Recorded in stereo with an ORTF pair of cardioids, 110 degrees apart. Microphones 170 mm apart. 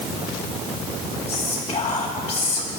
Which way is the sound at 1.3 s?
35° left.